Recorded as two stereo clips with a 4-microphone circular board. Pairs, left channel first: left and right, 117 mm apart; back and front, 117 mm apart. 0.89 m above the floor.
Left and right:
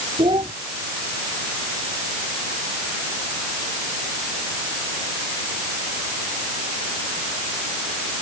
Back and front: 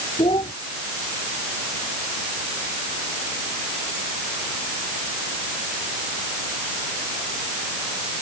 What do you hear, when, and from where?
0.2 s a child speaking: 135° right